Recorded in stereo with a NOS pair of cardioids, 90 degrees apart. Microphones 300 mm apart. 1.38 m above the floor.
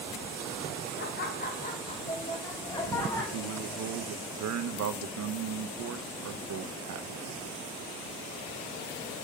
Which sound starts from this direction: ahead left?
Laughter, at 1.0 s.